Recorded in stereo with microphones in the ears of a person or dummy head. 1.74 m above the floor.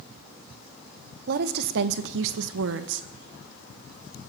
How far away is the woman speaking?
About 1.5 m.